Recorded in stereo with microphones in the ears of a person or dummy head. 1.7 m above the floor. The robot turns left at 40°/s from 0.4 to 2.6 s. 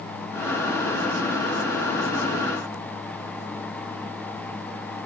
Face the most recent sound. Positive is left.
No sound to turn to.